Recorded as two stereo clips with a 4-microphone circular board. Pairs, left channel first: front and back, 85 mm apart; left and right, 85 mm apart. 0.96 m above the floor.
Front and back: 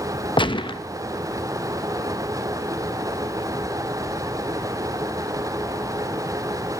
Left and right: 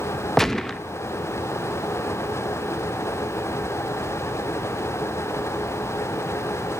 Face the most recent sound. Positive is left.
turn(degrees=5)